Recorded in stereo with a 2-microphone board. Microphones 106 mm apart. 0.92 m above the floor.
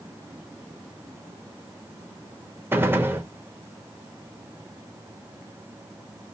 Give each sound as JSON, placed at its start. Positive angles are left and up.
{"t": 2.7, "sound": "a gunshot", "side_deg": -20, "distance_m": 0.6}